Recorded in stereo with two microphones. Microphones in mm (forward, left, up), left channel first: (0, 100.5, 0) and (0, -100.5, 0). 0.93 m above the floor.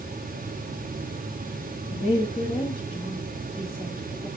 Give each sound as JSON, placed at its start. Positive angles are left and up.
{"t": 1.9, "sound": "a woman speaking", "side_deg": 40, "distance_m": 1.9}